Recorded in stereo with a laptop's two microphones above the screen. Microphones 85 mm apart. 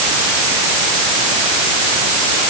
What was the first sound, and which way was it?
Only background noise.